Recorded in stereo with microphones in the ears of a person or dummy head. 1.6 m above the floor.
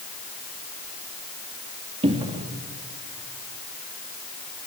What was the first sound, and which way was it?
A cupboard door, 25° right (ahead or behind).